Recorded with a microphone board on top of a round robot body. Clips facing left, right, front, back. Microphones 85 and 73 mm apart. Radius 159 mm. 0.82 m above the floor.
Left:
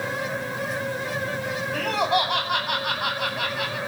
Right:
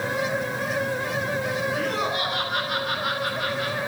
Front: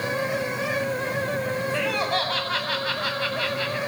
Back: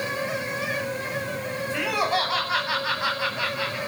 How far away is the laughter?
About 8.5 m.